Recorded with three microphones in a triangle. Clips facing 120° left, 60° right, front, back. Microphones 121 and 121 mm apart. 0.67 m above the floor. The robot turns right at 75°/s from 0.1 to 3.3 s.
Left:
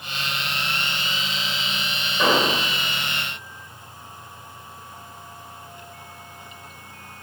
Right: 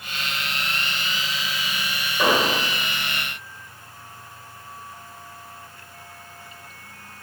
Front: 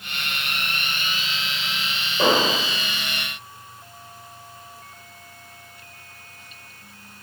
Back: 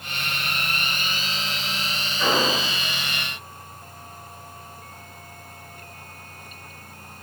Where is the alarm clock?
I don't hear an alarm clock.